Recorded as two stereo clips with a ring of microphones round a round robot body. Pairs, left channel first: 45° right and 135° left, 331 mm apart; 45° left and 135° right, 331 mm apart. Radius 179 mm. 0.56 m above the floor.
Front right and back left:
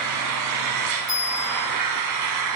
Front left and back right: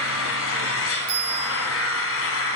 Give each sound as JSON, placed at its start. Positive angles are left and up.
{"t": 0.0, "sound": "an engine running", "azimuth_deg": 100, "distance_m": 1.4}
{"t": 1.1, "sound": "a bell", "azimuth_deg": -120, "distance_m": 4.5}